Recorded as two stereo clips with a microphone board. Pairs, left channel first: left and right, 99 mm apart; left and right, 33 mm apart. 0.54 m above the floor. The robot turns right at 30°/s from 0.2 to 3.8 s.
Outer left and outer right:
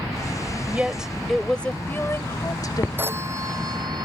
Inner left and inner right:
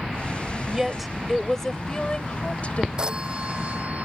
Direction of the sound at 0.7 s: 15° right.